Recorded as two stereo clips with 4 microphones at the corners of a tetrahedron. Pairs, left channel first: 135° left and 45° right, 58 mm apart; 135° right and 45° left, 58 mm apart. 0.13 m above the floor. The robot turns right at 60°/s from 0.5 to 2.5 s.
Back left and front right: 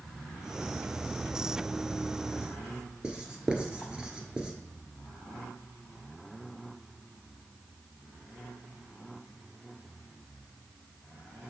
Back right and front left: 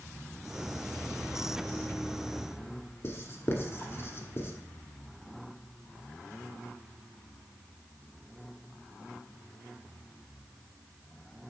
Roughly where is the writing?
Behind right.